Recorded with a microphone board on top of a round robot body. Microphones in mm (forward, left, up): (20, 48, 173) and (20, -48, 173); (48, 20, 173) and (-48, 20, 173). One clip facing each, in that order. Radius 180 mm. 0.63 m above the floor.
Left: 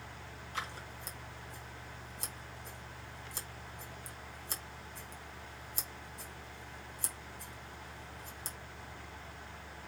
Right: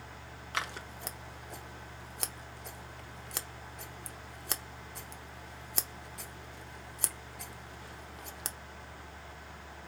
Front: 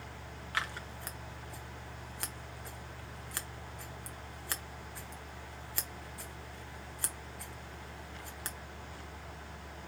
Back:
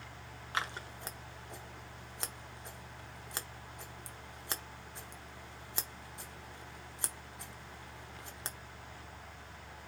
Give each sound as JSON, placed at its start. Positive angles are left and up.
{"t": 0.5, "sound": "scissors", "azimuth_deg": -110, "distance_m": 0.7}